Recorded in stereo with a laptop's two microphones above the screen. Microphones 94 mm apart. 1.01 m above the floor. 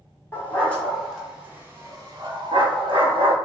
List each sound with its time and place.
0.3 s a dog barking: 20° left (ahead or behind), 0.9 m; by 3.4 s 65° right (ahead or behind), 1.1 m